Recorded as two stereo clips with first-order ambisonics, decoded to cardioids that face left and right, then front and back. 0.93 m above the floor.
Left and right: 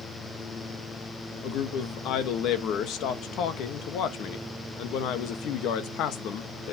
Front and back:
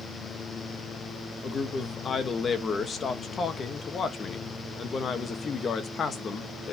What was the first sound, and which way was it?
A man speaking, 65° left.